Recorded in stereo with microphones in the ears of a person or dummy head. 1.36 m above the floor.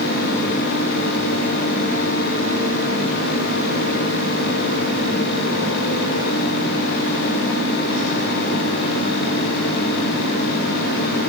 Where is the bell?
No bell in this recording.